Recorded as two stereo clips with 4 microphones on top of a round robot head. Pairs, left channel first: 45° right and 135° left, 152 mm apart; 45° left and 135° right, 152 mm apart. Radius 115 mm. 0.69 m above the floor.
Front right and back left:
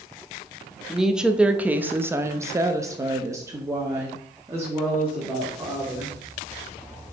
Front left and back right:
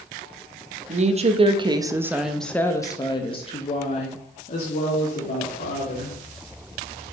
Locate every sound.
0.9 s a woman speaking: 135° right, 1.1 m; by 6.2 s 65° left, 2.5 m